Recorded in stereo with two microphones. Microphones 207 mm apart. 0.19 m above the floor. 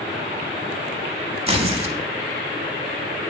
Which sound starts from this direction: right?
Tearing paper, at 1.5 s.